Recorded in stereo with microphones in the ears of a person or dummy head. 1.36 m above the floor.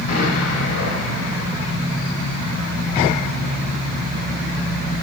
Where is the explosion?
40° left (ahead or behind), 7.5 m.